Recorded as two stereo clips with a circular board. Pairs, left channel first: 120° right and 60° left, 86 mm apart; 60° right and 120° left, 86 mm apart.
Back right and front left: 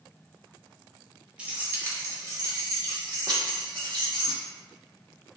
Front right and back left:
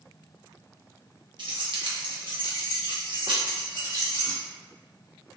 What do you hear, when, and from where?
1.4 s keys jangling: 135° left, 0.8 m; by 4.4 s 95° left, 2 m